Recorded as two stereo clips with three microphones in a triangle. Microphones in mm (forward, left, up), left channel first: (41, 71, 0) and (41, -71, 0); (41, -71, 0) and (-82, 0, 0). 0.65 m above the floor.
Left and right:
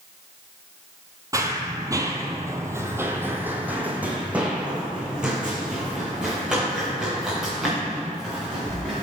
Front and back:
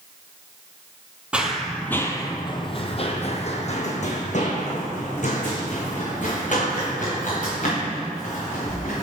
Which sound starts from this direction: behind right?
Running footsteps, at 1.3 s.